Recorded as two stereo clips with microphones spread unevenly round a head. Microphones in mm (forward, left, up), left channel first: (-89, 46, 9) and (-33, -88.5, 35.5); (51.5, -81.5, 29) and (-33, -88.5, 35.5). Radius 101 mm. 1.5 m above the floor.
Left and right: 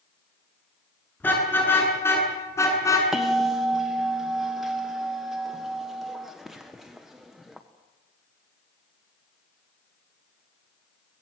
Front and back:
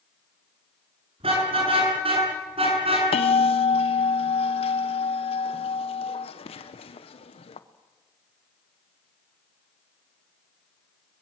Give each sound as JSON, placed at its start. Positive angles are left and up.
{"t": 1.2, "sound": "a car horn", "azimuth_deg": -170, "distance_m": 8.5}
{"t": 3.1, "sound": "a bell", "azimuth_deg": 25, "distance_m": 1.2}